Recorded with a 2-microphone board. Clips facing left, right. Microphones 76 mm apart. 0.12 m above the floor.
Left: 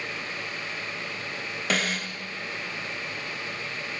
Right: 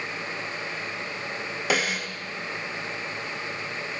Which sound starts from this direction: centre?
A snare drum, at 1.7 s.